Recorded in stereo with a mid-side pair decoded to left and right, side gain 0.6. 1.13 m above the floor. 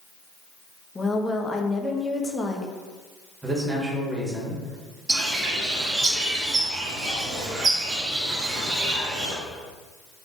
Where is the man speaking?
20° right, 1.7 m.